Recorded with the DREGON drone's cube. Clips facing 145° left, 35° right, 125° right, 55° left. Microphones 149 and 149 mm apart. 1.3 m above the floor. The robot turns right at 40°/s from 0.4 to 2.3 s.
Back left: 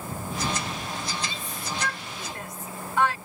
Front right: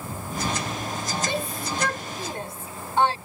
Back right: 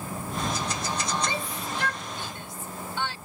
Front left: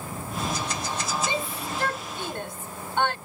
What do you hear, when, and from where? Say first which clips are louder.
1.3 s a shout: front right 7 dB, front left 2 dB; 15° right; by 3.2 s 25° left